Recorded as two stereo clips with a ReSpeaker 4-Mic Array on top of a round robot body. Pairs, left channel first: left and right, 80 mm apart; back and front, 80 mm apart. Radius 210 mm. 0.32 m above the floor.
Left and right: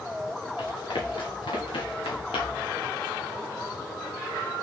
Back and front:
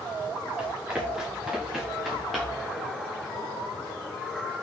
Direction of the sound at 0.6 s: 80° left.